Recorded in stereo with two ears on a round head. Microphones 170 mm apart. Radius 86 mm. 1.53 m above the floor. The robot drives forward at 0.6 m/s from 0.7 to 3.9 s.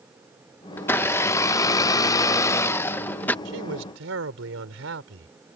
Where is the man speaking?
65° right (ahead or behind).